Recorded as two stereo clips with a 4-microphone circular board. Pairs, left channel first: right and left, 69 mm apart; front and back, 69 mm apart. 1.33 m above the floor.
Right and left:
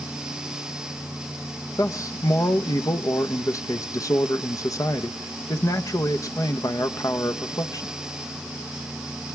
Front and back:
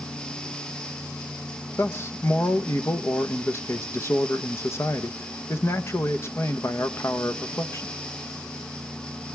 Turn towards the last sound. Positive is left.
turn(degrees=-50)